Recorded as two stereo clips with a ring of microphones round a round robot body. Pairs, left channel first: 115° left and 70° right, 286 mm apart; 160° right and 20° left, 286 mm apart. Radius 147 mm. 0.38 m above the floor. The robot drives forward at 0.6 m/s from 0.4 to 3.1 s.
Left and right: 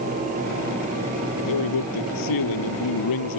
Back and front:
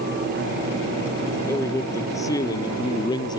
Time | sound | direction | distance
1.4 | a man speaking | 120° left | ?